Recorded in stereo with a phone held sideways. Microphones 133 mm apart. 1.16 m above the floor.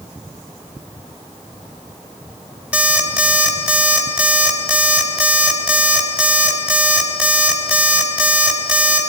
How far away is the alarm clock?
About 3.5 m.